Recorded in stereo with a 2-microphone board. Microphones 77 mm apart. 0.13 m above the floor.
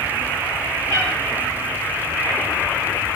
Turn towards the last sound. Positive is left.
turn(degrees=35)  # may be behind; listen again after turning